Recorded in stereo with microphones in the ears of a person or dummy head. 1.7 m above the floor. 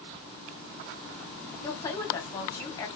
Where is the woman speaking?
15° left (ahead or behind), 1.2 m.